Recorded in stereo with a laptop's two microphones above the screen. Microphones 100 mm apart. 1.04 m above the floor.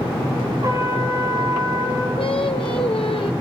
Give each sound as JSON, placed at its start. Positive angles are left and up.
{"t": 0.6, "sound": "a trumpet", "side_deg": -35, "distance_m": 2.5}
{"t": 2.2, "sound": "singing", "side_deg": 60, "distance_m": 1.1}